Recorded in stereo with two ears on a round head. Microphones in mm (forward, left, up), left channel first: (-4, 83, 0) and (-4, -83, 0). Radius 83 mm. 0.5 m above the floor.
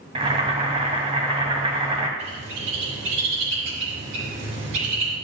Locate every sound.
0.1 s boiling: 30° right (ahead or behind), 1.8 m
2.2 s a bird: 80° right, 3.5 m